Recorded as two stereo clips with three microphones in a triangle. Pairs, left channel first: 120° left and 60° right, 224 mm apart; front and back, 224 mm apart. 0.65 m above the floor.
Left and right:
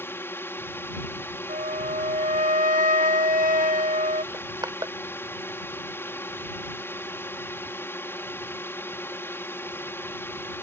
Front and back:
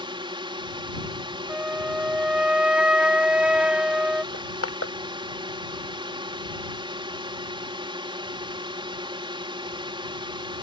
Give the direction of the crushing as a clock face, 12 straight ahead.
12 o'clock.